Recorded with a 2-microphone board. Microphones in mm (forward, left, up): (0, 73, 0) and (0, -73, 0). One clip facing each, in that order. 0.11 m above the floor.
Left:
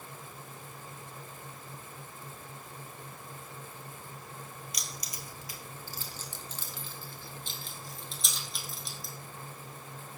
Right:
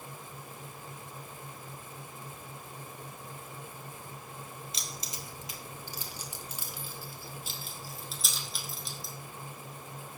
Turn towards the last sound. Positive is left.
turn(degrees=0)  # may be behind; listen again after turning